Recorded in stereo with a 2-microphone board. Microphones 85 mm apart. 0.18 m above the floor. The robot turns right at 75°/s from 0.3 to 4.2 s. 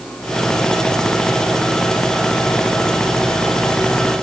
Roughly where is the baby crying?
No baby crying in this recording.